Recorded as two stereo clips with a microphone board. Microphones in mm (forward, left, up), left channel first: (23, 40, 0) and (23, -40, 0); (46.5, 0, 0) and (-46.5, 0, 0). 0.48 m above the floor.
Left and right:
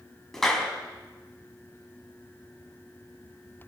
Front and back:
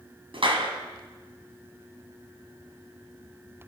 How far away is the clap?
About 4 m.